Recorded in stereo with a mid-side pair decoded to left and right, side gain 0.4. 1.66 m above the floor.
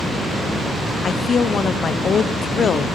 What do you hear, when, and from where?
1.0 s a woman speaking: 55° left, 0.9 m